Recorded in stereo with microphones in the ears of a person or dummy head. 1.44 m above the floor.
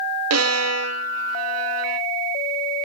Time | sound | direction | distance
0.3 | a violin | 70° right (ahead or behind) | 0.9 m